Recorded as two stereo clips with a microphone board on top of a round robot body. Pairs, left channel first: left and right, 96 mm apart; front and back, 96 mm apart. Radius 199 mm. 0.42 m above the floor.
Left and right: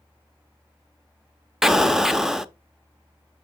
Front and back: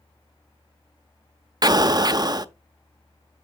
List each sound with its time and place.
1.6 s an explosion: 175° right, 0.8 m